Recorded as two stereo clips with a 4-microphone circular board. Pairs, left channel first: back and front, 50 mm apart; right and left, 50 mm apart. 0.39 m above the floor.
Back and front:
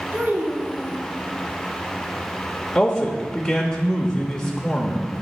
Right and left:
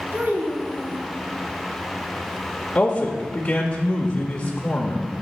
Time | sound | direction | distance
0.1 | a child speaking | 50° left | 2.5 m
2.8 | a man speaking | 110° right | 1.0 m